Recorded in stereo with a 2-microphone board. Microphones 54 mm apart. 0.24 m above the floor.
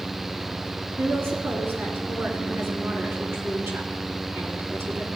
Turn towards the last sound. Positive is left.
turn(degrees=-45)  # may be behind; listen again after turning